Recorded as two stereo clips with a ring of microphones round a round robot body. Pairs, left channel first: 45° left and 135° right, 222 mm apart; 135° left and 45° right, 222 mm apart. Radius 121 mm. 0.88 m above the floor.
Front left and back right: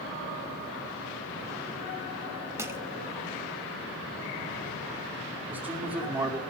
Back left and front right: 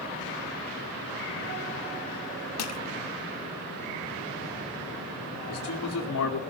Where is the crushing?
145° left, 2 m.